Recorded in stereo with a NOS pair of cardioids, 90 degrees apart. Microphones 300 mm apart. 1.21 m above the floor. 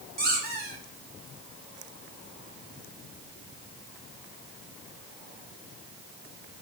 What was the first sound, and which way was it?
A squeak, 35° right.